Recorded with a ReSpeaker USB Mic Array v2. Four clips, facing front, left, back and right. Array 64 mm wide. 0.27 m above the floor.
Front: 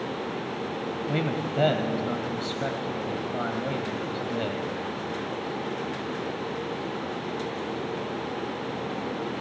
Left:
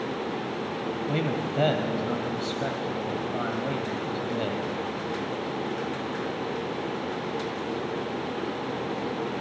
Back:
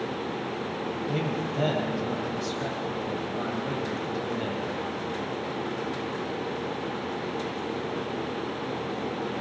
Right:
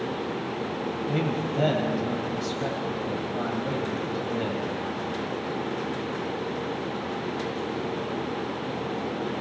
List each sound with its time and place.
1.1 s a man speaking: 25° left, 1.3 m